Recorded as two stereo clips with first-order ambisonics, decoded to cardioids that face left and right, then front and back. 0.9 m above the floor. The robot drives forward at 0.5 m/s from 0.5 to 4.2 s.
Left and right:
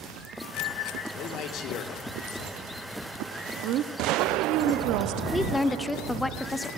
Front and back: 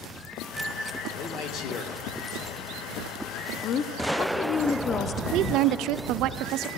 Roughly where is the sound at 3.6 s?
Ahead right.